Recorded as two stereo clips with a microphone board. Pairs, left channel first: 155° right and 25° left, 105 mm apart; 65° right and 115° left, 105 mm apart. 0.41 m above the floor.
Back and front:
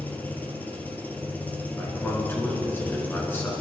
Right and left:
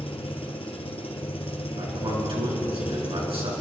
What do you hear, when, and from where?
0.0 s an engine running: 85° right, 2 m
1.8 s a man speaking: 135° left, 5 m